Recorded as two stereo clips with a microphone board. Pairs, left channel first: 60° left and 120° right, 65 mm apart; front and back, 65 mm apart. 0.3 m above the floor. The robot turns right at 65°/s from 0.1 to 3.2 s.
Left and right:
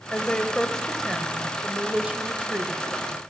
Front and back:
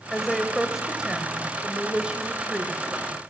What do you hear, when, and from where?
0.1 s a woman speaking: 75° left, 0.9 m; by 3.1 s 90° right, 0.9 m